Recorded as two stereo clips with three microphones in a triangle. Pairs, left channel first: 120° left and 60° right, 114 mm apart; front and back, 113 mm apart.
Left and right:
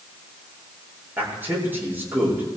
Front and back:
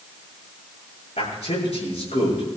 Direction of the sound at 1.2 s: 10° left.